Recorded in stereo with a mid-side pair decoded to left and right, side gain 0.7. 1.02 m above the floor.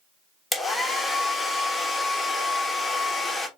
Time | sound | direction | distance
0.5 | a hair dryer | 10° left | 1.2 m